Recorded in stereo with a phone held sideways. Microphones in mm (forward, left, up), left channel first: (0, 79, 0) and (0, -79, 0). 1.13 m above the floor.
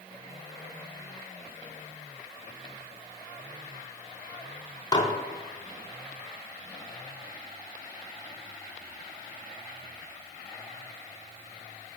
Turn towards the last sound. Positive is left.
turn(degrees=25)  # may be behind; listen again after turning